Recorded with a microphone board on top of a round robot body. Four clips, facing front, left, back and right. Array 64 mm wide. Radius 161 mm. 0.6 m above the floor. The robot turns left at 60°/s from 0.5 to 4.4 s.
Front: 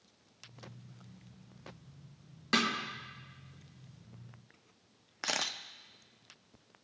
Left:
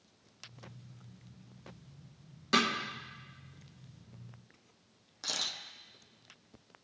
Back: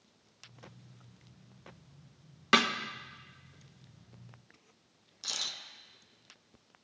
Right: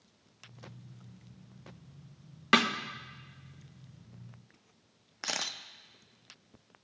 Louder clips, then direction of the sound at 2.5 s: Right 3 dB, back 4 dB; 115° right.